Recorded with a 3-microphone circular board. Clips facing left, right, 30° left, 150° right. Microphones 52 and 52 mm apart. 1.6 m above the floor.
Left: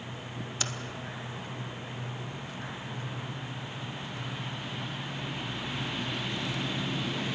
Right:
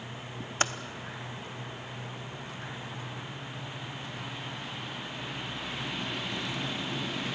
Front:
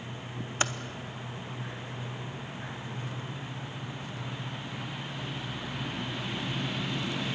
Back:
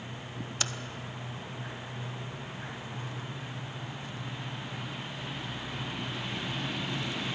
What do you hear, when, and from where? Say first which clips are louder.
0.6 s typing on a keyboard: right 8 dB, front 6 dB; 35° right, 1.0 m